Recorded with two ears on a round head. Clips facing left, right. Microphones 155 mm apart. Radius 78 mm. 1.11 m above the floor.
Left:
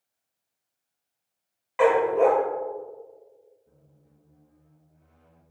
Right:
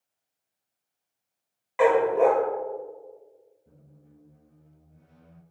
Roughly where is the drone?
I don't hear a drone.